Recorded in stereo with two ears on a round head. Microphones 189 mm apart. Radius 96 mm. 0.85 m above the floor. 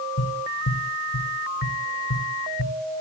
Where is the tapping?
65° left (ahead or behind), 1.7 m.